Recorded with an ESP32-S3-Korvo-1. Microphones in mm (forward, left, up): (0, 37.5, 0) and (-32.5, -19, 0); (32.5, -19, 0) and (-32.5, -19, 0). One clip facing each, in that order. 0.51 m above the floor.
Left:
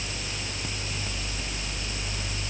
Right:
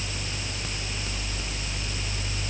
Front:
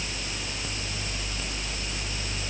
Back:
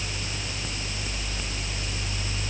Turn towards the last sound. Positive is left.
No sound to turn to.